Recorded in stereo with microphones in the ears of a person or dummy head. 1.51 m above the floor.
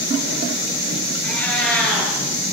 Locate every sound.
1.2 s a cat meowing: 5° left (ahead or behind), 8.5 m